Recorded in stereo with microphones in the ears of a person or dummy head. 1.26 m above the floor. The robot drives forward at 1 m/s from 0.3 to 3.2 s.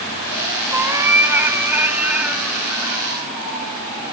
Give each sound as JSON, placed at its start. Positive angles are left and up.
{"t": 0.7, "sound": "a cat meowing", "side_deg": -15, "distance_m": 2.5}